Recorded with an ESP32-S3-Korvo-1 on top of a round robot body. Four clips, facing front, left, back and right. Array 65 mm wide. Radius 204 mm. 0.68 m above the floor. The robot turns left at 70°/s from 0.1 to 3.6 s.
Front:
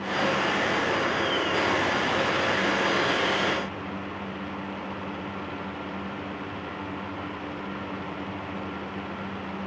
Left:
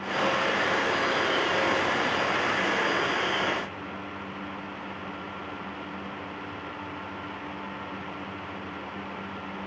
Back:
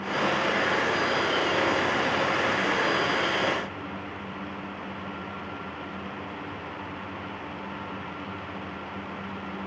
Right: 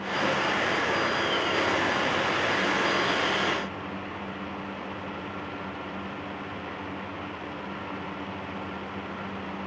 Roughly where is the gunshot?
No gunshot in this recording.